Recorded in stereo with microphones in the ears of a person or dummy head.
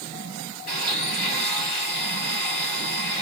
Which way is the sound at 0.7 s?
50° left (ahead or behind).